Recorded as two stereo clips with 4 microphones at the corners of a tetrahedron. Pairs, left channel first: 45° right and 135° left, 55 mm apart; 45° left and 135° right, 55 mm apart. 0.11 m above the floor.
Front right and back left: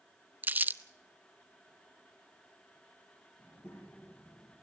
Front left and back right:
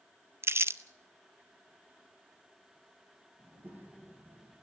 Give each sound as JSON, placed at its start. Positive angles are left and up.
{"t": 0.4, "sound": "crumpling", "azimuth_deg": -170, "distance_m": 0.6}
{"t": 3.4, "sound": "a child speaking", "azimuth_deg": -85, "distance_m": 4.5}